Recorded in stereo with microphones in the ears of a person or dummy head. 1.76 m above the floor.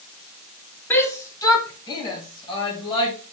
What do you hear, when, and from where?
0.9 s a shout: 10° left (ahead or behind), 1.6 m; by 3.1 s 30° left (ahead or behind), 3.5 m